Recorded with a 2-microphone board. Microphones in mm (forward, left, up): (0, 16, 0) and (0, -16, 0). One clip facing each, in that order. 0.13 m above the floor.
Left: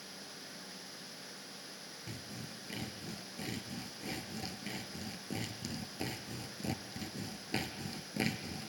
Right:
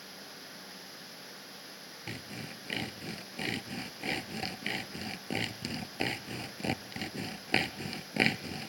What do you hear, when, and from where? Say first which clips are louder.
2.1 s sawing: right 6 dB; 60° right (ahead or behind), 0.6 m